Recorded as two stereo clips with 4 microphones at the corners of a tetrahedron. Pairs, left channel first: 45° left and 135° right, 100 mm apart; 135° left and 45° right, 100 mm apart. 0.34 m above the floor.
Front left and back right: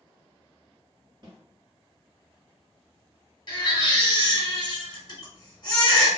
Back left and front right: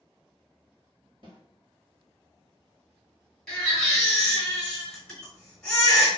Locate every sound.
1.2 s a snare drum: 85° right, 1.1 m
3.5 s a baby crying: 55° left, 1.2 m